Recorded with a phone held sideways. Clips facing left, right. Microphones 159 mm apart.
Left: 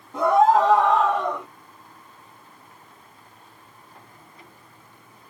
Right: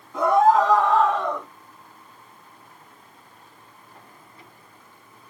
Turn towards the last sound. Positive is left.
turn(degrees=10)  # may be behind; listen again after turning